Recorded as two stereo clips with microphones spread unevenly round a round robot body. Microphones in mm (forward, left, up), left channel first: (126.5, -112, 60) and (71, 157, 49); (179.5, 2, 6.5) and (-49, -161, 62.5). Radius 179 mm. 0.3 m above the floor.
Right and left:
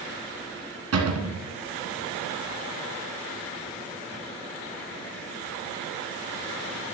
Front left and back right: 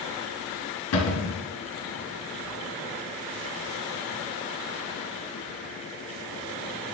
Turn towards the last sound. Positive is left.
turn(degrees=70)